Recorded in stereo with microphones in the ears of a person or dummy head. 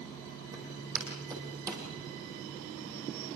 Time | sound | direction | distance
0.5 | footsteps | 15° right (ahead or behind) | 4.5 m